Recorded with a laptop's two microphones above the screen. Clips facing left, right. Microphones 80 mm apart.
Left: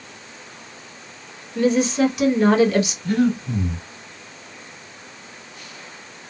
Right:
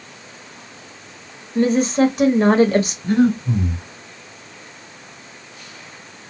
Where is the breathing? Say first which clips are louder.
Right 3 dB; 25° right (ahead or behind), 1.7 m.